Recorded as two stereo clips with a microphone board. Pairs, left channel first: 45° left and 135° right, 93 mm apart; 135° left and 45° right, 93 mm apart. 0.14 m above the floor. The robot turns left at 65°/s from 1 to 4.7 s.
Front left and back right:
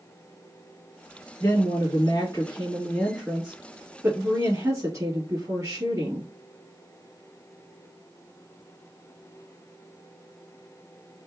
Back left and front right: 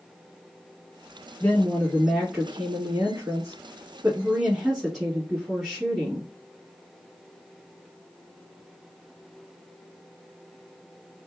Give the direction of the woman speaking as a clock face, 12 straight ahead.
9 o'clock.